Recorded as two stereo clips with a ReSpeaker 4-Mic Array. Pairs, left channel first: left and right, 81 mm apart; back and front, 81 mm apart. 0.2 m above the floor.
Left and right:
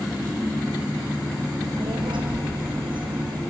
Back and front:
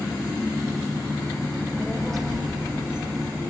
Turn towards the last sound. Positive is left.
turn(degrees=-80)